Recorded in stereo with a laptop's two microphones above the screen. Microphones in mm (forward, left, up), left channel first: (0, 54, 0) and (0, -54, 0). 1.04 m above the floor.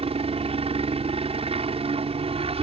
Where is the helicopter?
65° right (ahead or behind).